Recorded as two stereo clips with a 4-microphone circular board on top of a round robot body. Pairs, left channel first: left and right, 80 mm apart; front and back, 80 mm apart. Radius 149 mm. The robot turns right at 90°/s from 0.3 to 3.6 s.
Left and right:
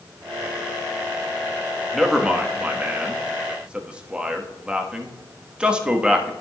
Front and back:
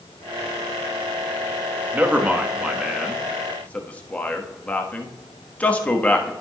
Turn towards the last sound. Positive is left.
turn(degrees=-35)